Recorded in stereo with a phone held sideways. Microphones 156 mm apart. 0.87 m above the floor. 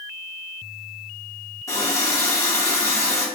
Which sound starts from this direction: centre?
A running tap, at 1.7 s.